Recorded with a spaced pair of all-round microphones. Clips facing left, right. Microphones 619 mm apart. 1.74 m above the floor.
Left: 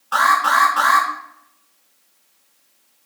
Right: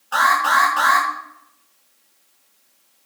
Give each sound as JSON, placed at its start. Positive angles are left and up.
{"t": 0.1, "sound": "an alarm", "side_deg": 30, "distance_m": 1.0}